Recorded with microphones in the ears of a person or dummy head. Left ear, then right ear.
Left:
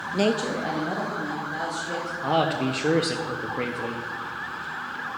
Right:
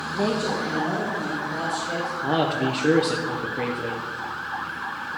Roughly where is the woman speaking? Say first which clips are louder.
Left 1 dB; left.